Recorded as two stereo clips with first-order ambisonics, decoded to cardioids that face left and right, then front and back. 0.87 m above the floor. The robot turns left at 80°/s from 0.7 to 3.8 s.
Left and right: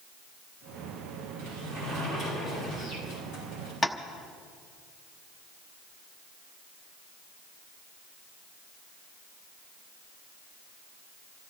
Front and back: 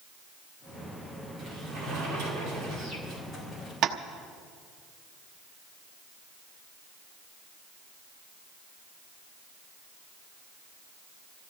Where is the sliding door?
115° right, 7 m; by 3.7 s 55° left, 7 m.